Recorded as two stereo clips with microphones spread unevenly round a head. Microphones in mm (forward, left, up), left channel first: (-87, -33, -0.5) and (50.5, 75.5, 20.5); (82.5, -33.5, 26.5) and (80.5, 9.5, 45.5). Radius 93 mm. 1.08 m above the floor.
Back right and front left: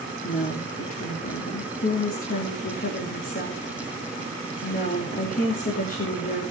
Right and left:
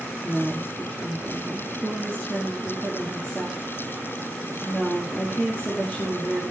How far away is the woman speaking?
About 2.5 m.